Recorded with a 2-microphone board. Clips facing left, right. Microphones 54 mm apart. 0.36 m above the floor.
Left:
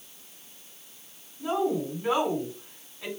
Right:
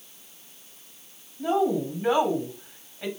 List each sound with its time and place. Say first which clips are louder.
1.4 s a woman speaking: right 3 dB; 45° right (ahead or behind), 2 m